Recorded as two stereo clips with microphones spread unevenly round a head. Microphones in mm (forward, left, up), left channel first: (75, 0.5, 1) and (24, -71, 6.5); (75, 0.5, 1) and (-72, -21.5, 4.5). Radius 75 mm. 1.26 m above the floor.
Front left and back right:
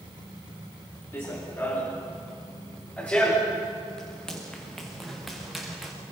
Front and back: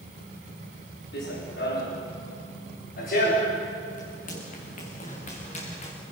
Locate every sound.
1.1 s running footsteps: 10° right, 6 m; by 5.9 s 40° right, 6.5 m